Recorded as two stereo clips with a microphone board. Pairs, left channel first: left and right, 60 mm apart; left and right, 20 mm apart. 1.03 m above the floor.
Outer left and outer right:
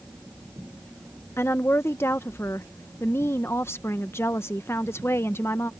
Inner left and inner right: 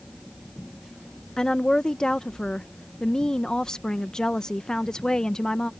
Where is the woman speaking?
40° left (ahead or behind).